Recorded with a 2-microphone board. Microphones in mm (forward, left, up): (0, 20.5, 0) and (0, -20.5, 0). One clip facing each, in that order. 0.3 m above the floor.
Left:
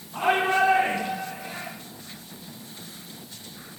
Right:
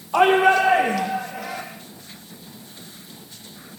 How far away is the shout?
About 9 m.